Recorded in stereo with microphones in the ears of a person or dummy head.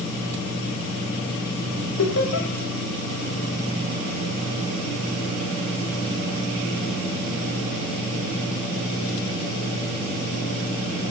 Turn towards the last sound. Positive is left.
turn(degrees=70)  # may be behind; listen again after turning